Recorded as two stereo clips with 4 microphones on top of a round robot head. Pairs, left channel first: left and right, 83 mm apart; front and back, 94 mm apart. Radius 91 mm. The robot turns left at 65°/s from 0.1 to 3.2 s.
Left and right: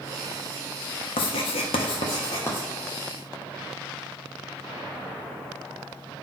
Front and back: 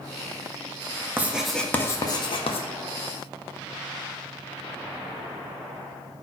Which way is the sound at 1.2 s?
110° left.